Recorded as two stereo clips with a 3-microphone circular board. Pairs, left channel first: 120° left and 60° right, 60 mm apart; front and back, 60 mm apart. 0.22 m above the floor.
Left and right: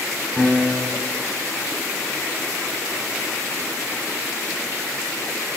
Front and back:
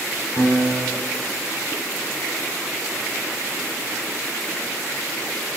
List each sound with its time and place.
0.4 s a piano: 40° left, 10 m